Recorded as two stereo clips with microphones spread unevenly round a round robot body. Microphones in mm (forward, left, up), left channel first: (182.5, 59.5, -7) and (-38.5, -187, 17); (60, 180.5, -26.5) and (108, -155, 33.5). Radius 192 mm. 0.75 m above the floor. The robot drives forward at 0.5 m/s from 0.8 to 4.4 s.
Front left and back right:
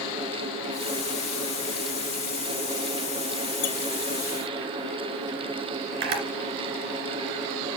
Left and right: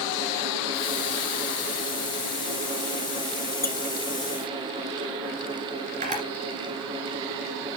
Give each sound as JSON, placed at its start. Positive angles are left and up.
{"t": 3.6, "sound": "a squeak", "azimuth_deg": 35, "distance_m": 1.7}
{"t": 6.0, "sound": "a camera shutter", "azimuth_deg": -150, "distance_m": 2.5}